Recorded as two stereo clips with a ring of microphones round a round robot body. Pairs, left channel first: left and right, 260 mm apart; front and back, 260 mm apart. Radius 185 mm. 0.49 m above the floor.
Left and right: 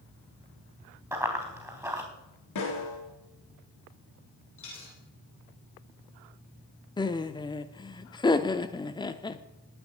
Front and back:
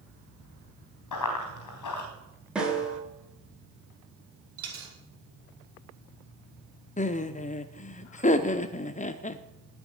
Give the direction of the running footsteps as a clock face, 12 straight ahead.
12 o'clock.